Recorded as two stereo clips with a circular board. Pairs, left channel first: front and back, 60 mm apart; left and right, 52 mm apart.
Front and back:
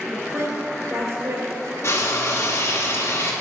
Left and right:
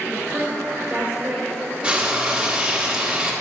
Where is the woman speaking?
150° right, 2 m.